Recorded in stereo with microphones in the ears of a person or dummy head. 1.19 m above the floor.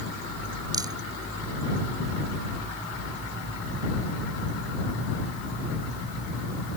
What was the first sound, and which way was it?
A rattle, 15° right (ahead or behind).